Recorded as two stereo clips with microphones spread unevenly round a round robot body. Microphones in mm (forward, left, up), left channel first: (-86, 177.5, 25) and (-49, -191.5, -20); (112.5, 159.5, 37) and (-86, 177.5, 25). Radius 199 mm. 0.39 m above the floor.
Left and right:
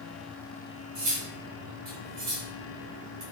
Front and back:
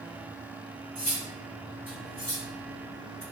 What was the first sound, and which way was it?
Cutlery clinking, 90° right.